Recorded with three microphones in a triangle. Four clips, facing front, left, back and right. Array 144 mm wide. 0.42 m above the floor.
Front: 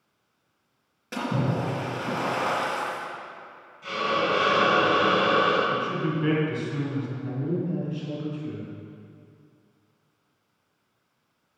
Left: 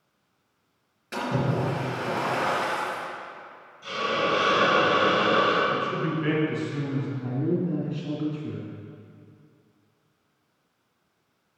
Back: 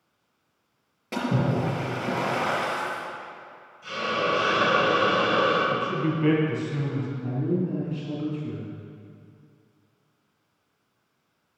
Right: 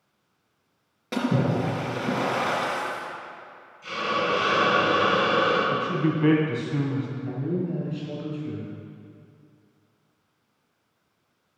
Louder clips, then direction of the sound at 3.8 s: Even, front 1 dB; 10° left.